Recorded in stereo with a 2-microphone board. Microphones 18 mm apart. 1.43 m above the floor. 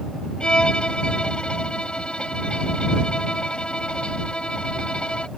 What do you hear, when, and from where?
0.4 s a violin: 70° left (ahead or behind)